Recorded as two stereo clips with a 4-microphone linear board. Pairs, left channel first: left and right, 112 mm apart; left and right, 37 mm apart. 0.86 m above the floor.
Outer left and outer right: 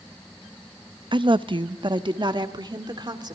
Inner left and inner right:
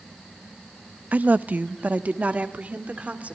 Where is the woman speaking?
45° right (ahead or behind), 0.5 m; by 3.4 s 40° right (ahead or behind), 2.5 m.